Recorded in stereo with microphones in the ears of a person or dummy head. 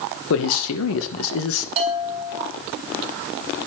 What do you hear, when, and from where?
0.3 s a man speaking: 80° left, 2 m
1.8 s a bell: 35° right (ahead or behind), 2 m